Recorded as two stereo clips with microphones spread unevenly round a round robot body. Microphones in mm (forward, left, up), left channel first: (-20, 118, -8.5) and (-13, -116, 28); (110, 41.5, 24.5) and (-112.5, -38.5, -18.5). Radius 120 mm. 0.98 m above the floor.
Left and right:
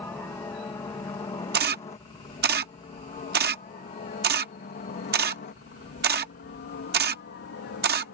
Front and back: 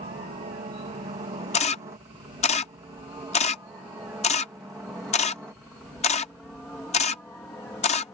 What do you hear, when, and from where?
0.0 s a helicopter: 165° left; by 8.1 s 100° left
1.5 s a camera shutter: 40° right